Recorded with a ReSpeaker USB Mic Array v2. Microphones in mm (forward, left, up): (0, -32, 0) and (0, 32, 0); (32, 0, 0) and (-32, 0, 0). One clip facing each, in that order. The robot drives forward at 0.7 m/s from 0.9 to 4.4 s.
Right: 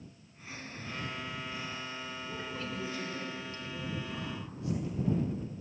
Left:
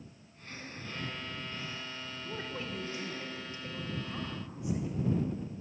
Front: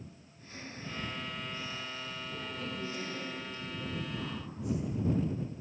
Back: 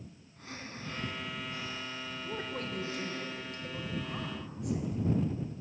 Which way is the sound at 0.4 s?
170° right.